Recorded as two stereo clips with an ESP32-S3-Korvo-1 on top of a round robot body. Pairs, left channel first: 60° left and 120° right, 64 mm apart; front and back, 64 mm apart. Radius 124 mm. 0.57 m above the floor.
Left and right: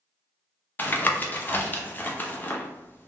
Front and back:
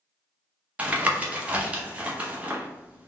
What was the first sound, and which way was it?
Tapping, 115° left.